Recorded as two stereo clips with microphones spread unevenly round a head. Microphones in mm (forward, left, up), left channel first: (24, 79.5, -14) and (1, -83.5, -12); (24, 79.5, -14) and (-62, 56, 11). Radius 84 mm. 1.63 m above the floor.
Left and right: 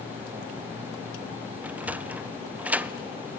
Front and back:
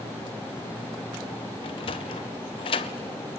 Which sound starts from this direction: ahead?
A sliding door, at 1.6 s.